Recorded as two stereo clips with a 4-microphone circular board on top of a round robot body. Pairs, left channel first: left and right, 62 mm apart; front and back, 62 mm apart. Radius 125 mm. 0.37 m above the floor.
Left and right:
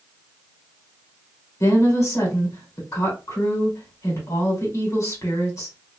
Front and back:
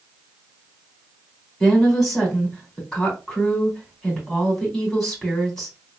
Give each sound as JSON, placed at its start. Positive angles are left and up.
{"t": 1.6, "sound": "a woman speaking", "azimuth_deg": 85, "distance_m": 2.0}